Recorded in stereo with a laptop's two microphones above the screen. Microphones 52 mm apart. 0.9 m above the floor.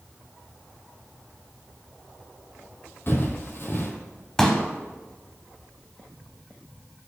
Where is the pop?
10° left (ahead or behind), 0.9 m.